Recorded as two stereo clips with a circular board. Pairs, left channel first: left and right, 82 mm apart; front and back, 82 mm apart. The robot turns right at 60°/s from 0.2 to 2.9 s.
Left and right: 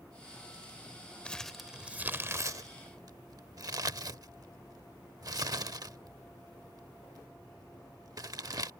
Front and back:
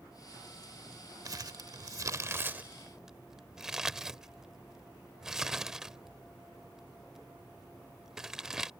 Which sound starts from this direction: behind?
Crumpling, at 1.2 s.